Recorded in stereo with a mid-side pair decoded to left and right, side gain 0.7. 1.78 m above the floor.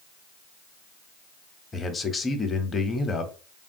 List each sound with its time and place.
1.7 s a man speaking: 20° left, 0.7 m